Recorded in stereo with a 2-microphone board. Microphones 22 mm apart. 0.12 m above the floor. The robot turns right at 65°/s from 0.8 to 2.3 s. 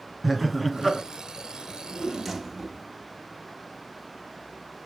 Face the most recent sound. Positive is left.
turn(degrees=-170)